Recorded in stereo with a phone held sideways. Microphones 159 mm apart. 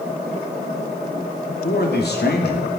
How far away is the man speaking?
About 3 m.